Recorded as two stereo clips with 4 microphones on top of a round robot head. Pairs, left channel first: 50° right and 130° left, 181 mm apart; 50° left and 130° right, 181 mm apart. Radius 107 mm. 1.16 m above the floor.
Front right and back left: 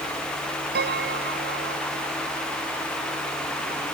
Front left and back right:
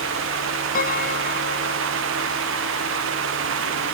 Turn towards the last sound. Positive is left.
turn(degrees=95)